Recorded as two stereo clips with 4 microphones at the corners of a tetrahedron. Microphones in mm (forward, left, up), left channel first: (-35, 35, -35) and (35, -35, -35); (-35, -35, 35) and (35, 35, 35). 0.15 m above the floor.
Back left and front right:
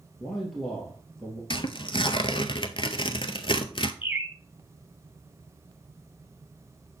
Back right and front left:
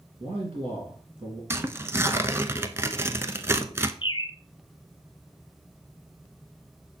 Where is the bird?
120° right, 0.9 m.